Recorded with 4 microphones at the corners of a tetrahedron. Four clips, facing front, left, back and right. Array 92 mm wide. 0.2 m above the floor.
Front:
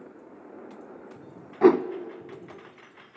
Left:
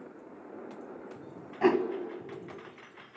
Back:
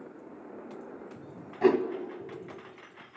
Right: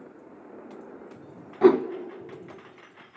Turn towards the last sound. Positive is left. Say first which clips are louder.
# right 7 dB, front 5 dB
turn(degrees=-30)